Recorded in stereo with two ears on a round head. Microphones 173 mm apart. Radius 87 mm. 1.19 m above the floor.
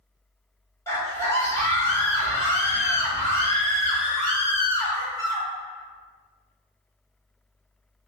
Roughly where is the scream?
Centre.